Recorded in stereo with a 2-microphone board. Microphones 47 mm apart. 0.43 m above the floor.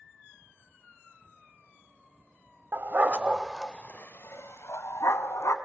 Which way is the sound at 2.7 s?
45° right (ahead or behind).